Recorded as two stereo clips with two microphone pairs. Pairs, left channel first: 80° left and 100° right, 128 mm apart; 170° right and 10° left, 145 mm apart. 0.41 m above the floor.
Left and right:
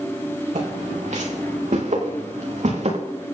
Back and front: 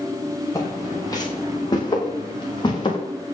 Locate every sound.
0.6 s footsteps: 105° right, 7.5 m; by 3.0 s 115° right, 8 m